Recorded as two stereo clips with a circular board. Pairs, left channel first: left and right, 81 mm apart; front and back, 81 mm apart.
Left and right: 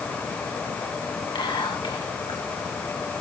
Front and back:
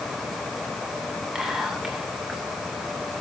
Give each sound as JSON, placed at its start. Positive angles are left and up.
{"t": 1.4, "sound": "whispering", "azimuth_deg": 95, "distance_m": 2.5}